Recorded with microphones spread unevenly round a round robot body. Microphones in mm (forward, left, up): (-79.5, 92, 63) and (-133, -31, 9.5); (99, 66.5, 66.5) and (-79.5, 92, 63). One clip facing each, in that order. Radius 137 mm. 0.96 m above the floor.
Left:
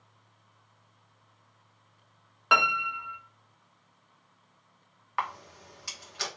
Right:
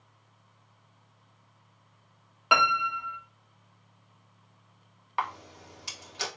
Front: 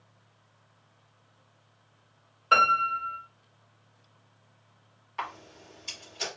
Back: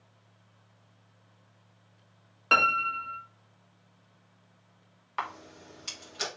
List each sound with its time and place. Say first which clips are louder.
2.5 s a piano: right 2 dB, front 2 dB; 175° left, 2 m
5.2 s a camera shutter: right 1 dB, back 1 dB; 170° right, 2.5 m